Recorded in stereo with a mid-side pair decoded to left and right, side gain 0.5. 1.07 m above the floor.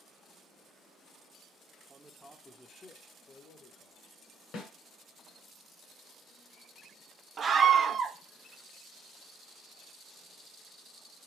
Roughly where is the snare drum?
Ahead left.